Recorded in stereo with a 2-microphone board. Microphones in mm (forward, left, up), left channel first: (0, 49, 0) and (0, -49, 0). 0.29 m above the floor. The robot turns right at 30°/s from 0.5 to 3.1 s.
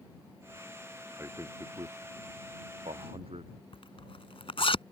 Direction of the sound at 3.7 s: 65° left (ahead or behind).